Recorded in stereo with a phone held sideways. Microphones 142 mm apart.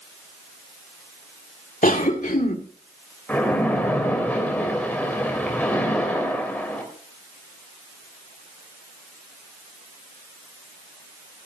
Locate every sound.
1.8 s a cough: 70° left (ahead or behind), 1.6 m
3.3 s a splash: 10° left (ahead or behind), 3 m